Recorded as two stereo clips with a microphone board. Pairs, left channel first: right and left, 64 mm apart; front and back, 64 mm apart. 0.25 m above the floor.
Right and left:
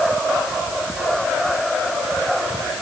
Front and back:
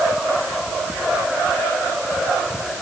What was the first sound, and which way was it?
Only background noise.